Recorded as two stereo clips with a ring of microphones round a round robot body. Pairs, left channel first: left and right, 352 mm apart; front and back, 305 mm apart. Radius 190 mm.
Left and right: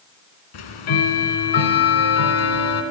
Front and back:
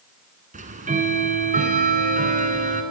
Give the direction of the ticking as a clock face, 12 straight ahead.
8 o'clock.